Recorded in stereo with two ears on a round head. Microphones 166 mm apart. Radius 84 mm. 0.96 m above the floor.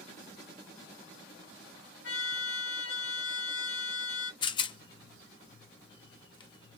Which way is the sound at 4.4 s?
25° left (ahead or behind).